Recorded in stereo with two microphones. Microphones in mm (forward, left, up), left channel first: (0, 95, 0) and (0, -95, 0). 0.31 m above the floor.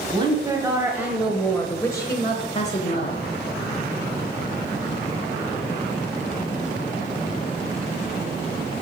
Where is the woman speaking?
25° right (ahead or behind), 1.8 m; by 3.2 s 45° left (ahead or behind), 1.4 m.